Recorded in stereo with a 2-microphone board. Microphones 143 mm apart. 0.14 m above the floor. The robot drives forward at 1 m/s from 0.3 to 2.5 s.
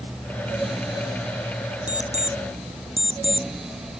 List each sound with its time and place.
1.9 s an alarm clock: 60° right (ahead or behind); by 4.0 s 50° right (ahead or behind)